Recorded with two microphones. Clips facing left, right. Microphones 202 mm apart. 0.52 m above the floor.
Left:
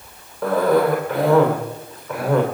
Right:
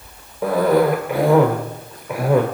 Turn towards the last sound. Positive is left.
turn(degrees=-10)  # may be behind; listen again after turning